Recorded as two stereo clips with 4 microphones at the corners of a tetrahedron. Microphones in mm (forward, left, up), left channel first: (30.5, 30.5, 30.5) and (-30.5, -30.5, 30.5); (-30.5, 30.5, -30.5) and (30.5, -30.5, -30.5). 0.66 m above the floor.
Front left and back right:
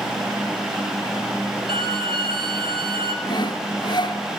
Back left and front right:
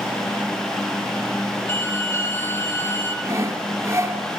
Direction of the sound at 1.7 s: 165° right.